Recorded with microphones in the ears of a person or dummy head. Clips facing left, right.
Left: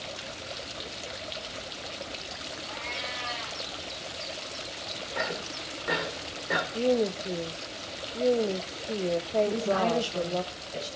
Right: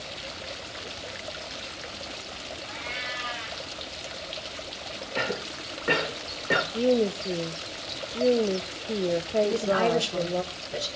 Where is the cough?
45° right (ahead or behind), 1.9 m.